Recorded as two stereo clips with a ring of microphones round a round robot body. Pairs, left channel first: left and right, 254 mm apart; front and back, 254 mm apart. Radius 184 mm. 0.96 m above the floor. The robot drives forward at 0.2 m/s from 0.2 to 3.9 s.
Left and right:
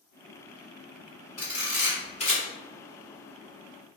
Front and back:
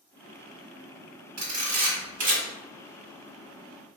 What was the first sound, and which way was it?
A camera shutter, 160° left.